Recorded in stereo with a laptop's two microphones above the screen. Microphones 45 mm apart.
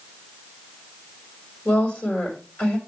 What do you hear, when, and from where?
1.6 s a woman speaking: 45° left (ahead or behind), 4.5 m